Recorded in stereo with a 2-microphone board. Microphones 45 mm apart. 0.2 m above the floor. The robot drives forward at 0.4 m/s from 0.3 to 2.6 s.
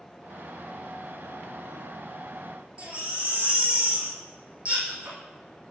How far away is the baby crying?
About 4 m.